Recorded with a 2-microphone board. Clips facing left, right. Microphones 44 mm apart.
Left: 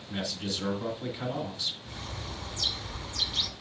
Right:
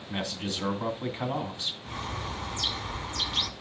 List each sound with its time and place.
0.1 s a man speaking: 40° right (ahead or behind), 2.0 m
1.9 s a bird: 45° right (ahead or behind), 0.7 m